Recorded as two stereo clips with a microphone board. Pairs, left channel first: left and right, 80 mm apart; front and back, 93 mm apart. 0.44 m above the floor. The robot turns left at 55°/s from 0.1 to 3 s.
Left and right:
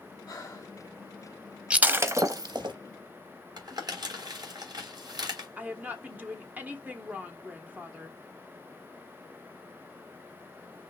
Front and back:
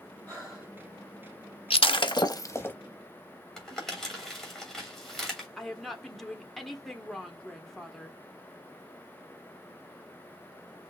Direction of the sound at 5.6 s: 80° right.